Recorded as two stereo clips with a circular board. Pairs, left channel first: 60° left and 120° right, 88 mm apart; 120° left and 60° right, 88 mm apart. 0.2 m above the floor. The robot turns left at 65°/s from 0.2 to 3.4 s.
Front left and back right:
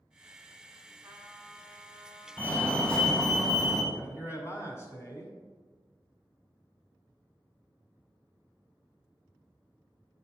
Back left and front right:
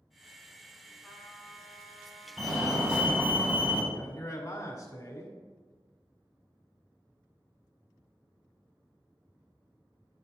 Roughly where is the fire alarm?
Ahead left.